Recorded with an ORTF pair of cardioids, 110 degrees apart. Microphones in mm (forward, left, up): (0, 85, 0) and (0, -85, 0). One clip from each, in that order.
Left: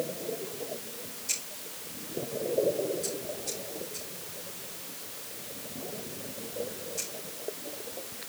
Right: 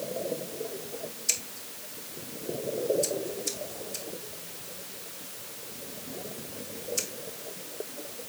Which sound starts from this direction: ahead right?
Scissors, at 1.3 s.